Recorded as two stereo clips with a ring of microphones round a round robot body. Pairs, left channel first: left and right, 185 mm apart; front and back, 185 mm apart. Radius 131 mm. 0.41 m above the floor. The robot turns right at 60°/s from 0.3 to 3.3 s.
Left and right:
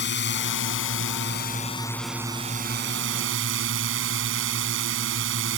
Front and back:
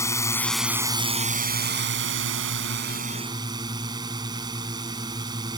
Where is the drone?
75° left; by 5.6 s 105° right.